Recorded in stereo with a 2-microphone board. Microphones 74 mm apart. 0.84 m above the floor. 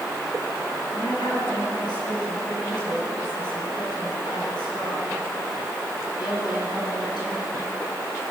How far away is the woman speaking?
About 9 m.